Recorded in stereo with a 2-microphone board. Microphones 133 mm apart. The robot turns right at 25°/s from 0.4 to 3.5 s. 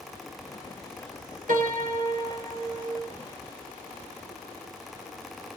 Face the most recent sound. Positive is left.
turn(degrees=-55)